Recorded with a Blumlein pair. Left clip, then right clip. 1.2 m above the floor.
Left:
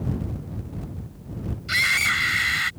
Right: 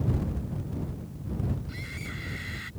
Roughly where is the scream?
Ahead left.